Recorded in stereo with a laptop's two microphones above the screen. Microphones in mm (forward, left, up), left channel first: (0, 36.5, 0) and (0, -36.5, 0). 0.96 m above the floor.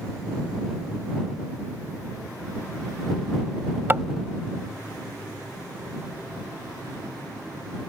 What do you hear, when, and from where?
3.9 s tapping: 30° right (ahead or behind)